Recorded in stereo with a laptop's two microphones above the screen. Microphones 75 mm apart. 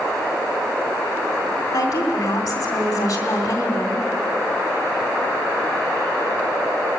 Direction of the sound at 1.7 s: 45° left (ahead or behind).